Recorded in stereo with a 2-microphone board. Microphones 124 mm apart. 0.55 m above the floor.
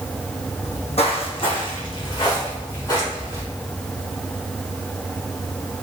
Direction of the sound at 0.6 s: 60° left (ahead or behind).